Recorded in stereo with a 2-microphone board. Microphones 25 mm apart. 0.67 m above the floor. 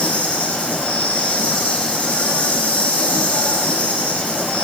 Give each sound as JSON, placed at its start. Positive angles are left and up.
{"t": 0.0, "sound": "an insect", "side_deg": 80, "distance_m": 6.5}